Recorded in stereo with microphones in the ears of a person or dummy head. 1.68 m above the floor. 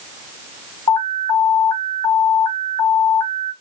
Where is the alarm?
10° left (ahead or behind), 1.5 m.